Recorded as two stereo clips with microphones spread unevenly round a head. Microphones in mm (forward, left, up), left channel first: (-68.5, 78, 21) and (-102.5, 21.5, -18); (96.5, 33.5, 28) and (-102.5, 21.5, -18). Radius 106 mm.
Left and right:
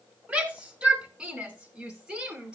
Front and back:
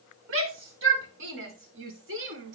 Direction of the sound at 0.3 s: 165° left.